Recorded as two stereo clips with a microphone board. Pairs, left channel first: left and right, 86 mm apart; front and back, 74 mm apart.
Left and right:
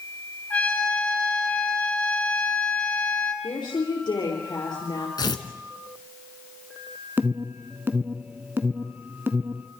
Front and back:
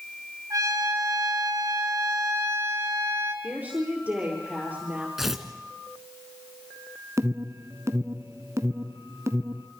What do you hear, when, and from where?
0.5 s a trumpet: 160° left, 2.0 m
3.4 s a woman speaking: 115° left, 5 m
5.2 s tearing paper: 95° left, 1.8 m
7.2 s an alarm: 150° right, 1.1 m